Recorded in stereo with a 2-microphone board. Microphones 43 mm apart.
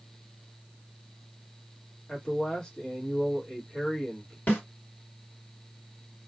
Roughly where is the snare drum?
Left.